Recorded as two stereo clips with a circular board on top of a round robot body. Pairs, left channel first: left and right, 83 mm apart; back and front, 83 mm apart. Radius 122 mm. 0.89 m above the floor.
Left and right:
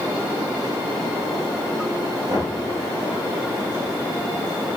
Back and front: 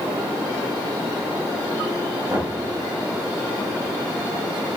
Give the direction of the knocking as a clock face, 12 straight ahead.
2 o'clock.